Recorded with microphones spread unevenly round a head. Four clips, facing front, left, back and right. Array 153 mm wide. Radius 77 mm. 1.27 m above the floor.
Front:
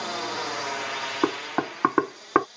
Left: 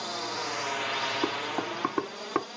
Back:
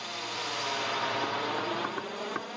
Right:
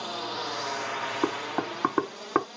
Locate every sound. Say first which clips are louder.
0.0 s a drone: right 1 dB, front 7 dB; 10° right; by 2.6 s 170° left
1.2 s knocking: right 2 dB, front 5 dB; 15° right